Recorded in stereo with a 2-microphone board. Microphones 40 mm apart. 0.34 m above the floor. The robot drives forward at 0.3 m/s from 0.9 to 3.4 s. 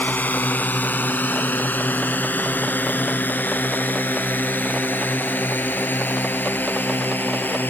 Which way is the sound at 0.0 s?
50° left (ahead or behind).